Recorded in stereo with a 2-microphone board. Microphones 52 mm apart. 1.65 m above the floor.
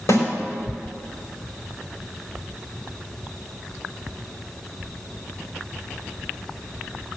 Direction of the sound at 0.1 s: 85° left.